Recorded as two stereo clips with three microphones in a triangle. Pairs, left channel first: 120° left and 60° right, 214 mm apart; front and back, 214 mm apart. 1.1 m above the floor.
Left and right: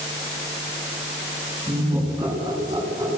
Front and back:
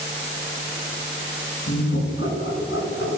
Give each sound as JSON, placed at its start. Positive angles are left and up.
{"t": 1.7, "sound": "laughter", "azimuth_deg": 15, "distance_m": 10.0}